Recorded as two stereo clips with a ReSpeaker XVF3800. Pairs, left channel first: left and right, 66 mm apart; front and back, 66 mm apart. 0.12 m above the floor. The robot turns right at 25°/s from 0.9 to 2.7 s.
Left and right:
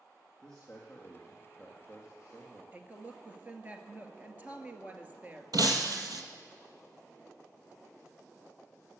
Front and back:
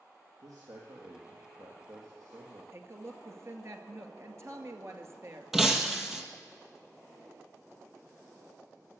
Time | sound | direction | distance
0.4 | a man speaking | 170° left | 3.5 m
2.7 | a woman speaking | 150° right | 2 m
5.5 | breaking glass | 95° right | 1.6 m